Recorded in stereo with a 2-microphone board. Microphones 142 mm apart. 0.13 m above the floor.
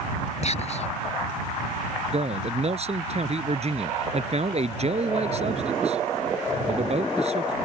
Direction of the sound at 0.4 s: 50° left (ahead or behind).